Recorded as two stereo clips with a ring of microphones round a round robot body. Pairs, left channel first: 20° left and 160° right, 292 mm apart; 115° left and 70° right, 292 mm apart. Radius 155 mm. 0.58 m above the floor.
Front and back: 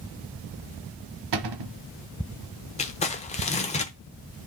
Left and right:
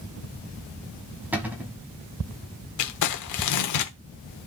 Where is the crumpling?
90° left, 1.0 m.